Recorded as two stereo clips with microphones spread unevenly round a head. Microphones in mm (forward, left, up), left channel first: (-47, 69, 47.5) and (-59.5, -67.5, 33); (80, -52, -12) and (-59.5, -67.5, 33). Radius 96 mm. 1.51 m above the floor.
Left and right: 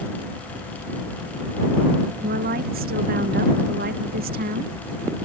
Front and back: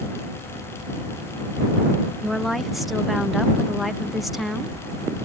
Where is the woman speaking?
85° right.